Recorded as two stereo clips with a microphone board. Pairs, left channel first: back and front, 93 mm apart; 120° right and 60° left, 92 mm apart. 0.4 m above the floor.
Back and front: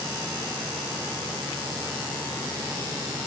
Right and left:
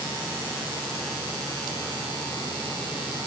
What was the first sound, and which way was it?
Only background noise.